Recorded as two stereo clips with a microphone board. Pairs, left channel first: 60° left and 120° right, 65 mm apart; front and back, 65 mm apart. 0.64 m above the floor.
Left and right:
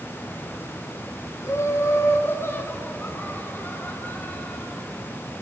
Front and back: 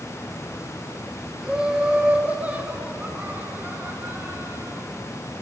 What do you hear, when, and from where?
1.4 s laughter: 100° left, 2 m; by 4.9 s 130° left, 4 m